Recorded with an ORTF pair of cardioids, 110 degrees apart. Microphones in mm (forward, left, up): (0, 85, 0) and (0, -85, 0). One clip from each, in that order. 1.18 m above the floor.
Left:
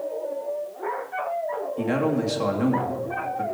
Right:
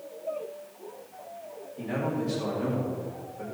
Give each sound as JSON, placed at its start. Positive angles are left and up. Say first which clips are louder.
{"t": 1.8, "sound": "a man speaking", "louder": "left 5 dB", "azimuth_deg": 55, "distance_m": 2.5}